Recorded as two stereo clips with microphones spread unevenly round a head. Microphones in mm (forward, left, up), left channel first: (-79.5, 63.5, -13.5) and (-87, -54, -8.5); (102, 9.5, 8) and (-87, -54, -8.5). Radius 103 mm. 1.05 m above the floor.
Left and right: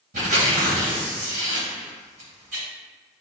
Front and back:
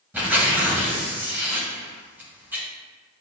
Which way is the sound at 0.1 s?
80° right.